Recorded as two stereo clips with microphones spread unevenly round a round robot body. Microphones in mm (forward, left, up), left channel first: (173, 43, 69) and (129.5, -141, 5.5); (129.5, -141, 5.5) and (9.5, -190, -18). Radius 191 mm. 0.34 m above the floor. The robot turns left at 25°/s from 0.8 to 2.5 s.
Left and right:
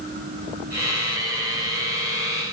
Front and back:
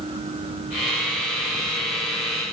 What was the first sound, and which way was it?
Only background noise.